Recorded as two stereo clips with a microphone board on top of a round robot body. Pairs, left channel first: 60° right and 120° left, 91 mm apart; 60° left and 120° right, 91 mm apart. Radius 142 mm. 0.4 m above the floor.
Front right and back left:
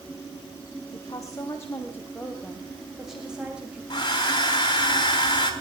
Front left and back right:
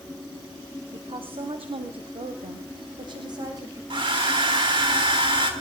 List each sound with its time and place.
0.9 s a woman speaking: 105° right, 2.5 m; by 3.8 s 165° right, 3 m
3.9 s a hair dryer: 100° right, 4.5 m